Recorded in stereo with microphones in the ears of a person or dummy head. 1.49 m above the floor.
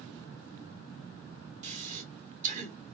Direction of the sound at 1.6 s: 40° right (ahead or behind).